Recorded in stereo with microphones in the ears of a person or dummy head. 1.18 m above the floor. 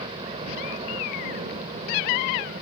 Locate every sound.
0.0 s a helicopter: 25° right (ahead or behind); by 2.6 s 30° right (ahead or behind)